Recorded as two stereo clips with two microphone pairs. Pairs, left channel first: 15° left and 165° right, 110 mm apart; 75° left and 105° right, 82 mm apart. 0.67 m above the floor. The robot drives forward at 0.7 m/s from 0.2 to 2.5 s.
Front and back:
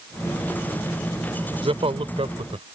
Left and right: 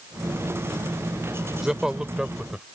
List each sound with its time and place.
1.6 s a man speaking: 170° left